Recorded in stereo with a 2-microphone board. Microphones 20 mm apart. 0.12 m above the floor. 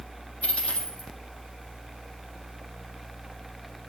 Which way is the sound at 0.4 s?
75° left (ahead or behind).